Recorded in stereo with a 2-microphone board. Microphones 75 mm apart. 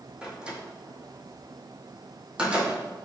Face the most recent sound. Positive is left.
turn(degrees=-15)  # may be behind; listen again after turning